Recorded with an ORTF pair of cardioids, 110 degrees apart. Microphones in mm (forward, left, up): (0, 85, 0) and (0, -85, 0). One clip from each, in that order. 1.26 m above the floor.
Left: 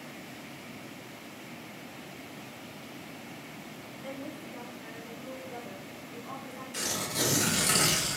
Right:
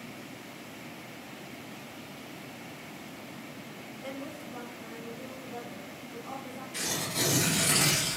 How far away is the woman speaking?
About 0.6 m.